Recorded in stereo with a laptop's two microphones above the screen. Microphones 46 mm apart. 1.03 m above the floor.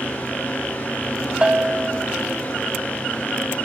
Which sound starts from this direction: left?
A fan, at 0.0 s.